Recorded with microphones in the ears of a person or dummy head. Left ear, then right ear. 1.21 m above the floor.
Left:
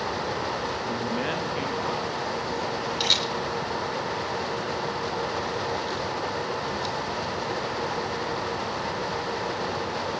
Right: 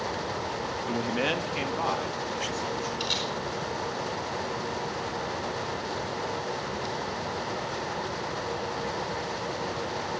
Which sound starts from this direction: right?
A man speaking, at 0.9 s.